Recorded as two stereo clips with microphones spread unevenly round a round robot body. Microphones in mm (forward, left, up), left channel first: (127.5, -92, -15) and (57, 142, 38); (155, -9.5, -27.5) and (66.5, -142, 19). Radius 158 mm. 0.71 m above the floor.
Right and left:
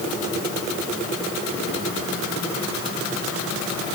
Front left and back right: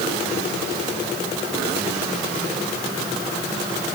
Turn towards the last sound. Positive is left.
No sound to turn to.